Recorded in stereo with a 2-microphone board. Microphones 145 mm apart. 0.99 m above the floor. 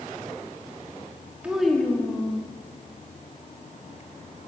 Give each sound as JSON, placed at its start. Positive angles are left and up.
{"t": 1.4, "sound": "a child speaking", "side_deg": -10, "distance_m": 1.5}